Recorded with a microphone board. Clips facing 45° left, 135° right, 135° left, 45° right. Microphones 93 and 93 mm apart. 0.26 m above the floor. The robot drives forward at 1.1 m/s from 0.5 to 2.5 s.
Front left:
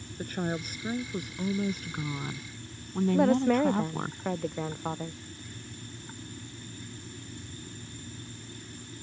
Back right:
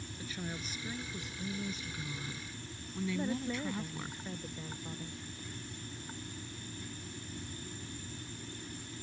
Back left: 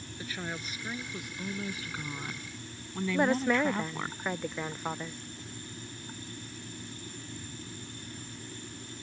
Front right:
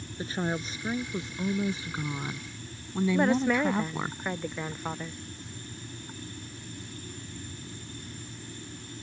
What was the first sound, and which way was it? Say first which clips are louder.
A woman speaking: front left 11 dB, front right 8 dB; 15° left.